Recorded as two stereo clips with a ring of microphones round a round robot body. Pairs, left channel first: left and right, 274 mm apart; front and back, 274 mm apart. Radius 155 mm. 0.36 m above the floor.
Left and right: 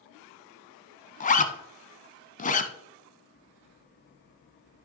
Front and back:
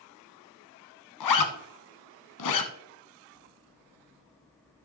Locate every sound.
1.2 s a zipper: 25° left, 1.0 m